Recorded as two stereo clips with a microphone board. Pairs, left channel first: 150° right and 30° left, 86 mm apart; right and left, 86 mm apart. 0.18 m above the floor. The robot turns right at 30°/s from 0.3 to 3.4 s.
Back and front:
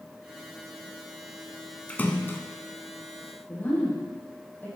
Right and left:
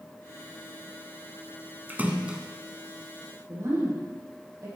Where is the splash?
145° left, 1.7 m; by 2.4 s 160° left, 1.7 m.